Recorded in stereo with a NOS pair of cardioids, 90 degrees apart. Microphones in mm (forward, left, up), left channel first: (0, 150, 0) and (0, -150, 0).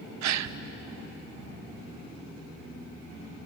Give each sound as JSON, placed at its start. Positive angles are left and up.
{"t": 0.2, "sound": "a gasp", "azimuth_deg": -65, "distance_m": 0.8}